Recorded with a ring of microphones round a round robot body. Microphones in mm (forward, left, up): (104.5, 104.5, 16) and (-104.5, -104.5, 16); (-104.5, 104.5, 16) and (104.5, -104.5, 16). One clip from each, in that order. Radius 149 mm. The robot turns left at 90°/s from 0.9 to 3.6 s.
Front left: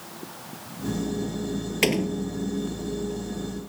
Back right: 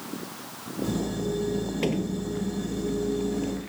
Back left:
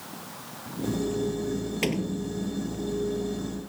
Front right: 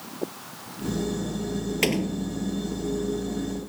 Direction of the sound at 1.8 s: 25° left.